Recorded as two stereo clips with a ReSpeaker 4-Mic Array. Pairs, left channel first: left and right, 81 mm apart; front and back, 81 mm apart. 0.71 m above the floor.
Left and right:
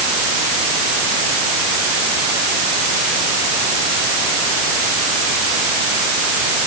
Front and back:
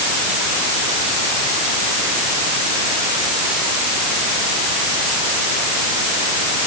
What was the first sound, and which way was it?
Only background noise.